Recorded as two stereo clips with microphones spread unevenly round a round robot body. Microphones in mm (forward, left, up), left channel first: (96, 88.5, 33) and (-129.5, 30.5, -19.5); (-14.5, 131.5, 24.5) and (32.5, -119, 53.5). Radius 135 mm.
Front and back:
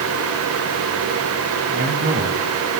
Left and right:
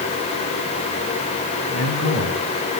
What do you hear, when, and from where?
1.7 s a man speaking: 145° left, 5 m